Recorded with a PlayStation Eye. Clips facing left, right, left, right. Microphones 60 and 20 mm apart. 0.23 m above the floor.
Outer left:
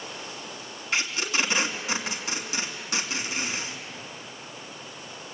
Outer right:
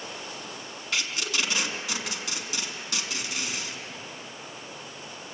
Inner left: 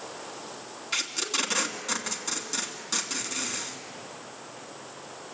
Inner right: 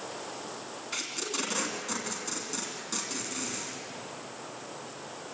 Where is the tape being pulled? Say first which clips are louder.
Outer left 3 dB, inner left 6 dB; 25° left (ahead or behind), 2.5 m.